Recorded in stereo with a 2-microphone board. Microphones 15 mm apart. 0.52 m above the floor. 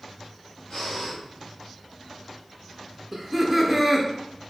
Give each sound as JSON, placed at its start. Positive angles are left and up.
{"t": 0.7, "sound": "breathing", "side_deg": 50, "distance_m": 1.7}
{"t": 3.1, "sound": "laughter", "side_deg": 0, "distance_m": 0.8}